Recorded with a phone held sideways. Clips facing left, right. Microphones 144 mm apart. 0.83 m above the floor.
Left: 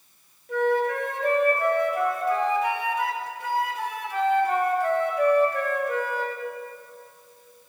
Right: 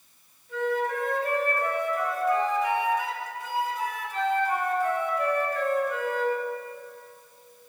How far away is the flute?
About 1.6 m.